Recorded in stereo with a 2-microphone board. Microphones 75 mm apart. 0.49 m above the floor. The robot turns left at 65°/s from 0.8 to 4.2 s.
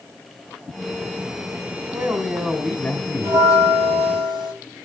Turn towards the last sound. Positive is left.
turn(degrees=-100)